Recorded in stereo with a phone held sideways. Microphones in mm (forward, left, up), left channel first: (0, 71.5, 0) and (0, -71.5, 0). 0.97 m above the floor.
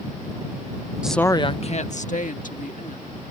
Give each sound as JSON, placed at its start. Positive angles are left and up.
{"t": 1.0, "sound": "a woman speaking", "side_deg": -5}